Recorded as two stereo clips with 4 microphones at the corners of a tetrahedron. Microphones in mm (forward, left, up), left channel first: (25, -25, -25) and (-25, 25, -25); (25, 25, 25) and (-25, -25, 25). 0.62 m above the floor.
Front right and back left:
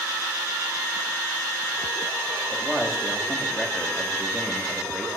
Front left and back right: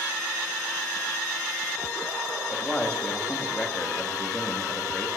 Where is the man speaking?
40° left, 1.2 m.